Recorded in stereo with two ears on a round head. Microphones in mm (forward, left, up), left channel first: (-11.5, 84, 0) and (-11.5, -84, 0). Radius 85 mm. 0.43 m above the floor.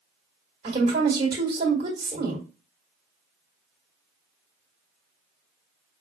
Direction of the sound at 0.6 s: 20° right (ahead or behind).